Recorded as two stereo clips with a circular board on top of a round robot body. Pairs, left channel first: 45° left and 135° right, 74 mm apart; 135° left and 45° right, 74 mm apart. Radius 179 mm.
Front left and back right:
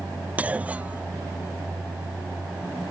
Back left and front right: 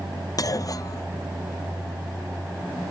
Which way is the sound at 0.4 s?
155° left.